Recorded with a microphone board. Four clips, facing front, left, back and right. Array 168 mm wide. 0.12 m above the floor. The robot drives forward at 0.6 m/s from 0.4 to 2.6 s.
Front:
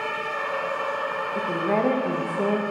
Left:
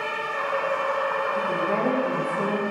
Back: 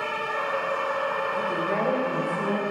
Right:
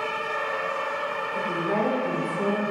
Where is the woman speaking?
Straight ahead, 8 m.